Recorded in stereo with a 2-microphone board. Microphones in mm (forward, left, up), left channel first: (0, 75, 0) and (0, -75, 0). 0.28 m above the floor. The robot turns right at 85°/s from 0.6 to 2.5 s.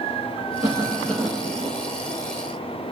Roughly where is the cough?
Behind left.